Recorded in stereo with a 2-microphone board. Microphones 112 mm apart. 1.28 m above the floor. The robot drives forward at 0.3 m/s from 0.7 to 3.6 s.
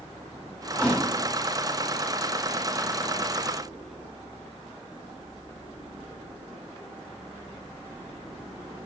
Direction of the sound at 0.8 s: 10° left (ahead or behind).